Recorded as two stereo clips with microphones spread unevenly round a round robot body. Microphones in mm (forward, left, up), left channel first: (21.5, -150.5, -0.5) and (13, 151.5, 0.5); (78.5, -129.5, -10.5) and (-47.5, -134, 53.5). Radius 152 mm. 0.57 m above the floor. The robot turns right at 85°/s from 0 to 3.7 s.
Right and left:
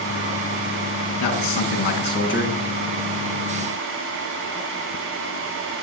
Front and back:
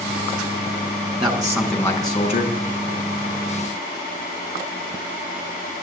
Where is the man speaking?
125° right, 7 m; by 2.5 s 15° right, 7 m.